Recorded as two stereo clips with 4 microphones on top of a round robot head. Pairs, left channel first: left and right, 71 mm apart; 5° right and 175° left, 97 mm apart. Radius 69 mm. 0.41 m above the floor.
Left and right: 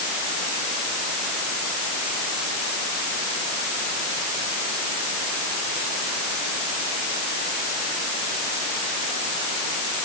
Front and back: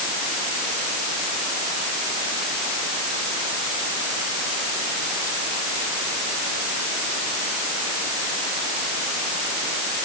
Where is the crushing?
I don't hear crushing.